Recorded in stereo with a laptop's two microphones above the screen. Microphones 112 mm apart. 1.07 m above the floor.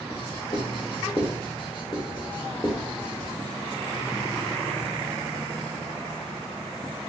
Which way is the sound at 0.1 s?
50° left (ahead or behind).